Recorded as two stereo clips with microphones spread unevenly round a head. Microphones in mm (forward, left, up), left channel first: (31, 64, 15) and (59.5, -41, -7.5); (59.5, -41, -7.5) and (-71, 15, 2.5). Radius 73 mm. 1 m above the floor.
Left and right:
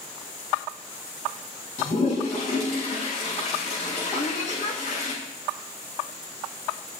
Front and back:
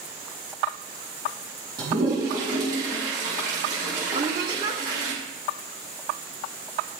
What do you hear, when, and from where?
1.8 s a toilet flushing: 95° left, 6 m
4.1 s a woman speaking: 95° left, 2.5 m